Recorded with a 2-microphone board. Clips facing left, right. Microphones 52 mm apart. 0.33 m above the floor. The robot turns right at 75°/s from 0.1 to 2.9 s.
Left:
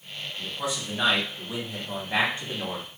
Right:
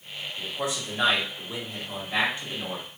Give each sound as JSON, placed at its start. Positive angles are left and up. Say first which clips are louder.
{"t": 0.4, "sound": "a man speaking", "louder": "right 1 dB", "azimuth_deg": -50, "distance_m": 2.5}